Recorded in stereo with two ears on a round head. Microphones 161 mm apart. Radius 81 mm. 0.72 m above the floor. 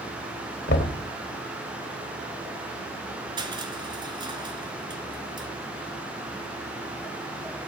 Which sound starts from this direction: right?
Crushing, at 3.4 s.